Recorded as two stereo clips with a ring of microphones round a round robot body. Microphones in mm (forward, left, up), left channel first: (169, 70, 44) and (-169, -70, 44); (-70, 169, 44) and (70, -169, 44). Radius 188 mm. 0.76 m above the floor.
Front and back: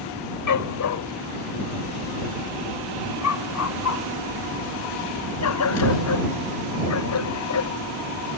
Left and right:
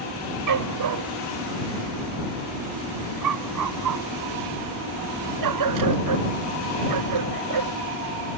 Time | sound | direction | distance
0.5 | a dog barking | 25° right | ?